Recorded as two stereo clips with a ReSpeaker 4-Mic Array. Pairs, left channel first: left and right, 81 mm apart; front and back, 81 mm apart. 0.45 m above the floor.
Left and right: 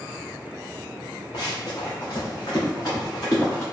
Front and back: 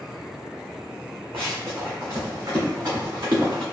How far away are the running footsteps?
About 1.3 m.